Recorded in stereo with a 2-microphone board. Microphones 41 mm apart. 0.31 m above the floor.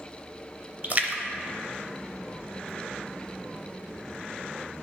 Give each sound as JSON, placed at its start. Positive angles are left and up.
{"t": 0.8, "sound": "a splash", "side_deg": -40, "distance_m": 0.6}